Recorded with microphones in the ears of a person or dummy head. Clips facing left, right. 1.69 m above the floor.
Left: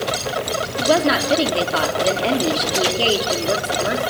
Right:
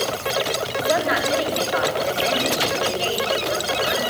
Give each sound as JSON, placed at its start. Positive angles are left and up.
{"t": 0.8, "sound": "a woman speaking", "side_deg": 65, "distance_m": 4.0}